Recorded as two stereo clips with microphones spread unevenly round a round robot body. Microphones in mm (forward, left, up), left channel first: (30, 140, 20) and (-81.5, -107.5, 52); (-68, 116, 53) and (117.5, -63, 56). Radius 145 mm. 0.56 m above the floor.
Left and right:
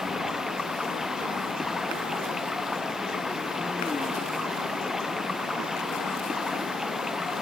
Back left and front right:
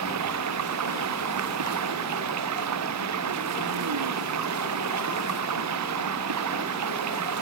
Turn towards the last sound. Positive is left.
turn(degrees=-25)